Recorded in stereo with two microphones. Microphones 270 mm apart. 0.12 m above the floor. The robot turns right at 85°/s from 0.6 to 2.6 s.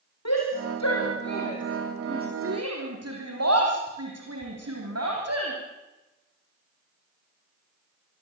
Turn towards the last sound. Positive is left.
turn(degrees=-65)  # may be behind; listen again after turning